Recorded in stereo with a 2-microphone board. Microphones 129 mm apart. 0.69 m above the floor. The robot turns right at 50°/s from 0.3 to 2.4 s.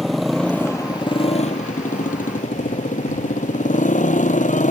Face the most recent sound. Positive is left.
turn(degrees=105)